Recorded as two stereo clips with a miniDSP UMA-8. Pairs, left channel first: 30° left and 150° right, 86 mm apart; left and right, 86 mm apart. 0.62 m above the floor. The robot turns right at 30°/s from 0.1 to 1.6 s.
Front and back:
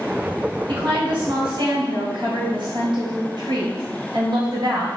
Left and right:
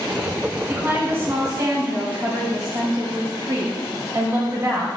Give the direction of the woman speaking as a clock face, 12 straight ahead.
5 o'clock.